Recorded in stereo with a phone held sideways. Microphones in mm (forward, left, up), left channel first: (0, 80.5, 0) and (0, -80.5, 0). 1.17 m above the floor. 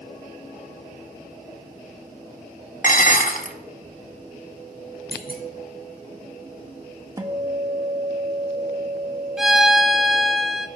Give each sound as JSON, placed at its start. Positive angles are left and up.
{"t": 2.8, "sound": "dishes clattering", "side_deg": 55, "distance_m": 0.9}
{"t": 5.1, "sound": "a clunk", "side_deg": 65, "distance_m": 1.6}
{"t": 7.2, "sound": "a guitar", "side_deg": -20, "distance_m": 0.9}
{"t": 9.4, "sound": "a violin", "side_deg": -5, "distance_m": 0.8}